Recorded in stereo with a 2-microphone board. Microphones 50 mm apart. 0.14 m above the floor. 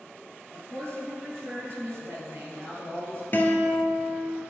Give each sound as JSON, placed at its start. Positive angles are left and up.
{"t": 0.5, "sound": "a woman speaking", "side_deg": -60, "distance_m": 2.5}
{"t": 3.3, "sound": "a guitar", "side_deg": 40, "distance_m": 1.1}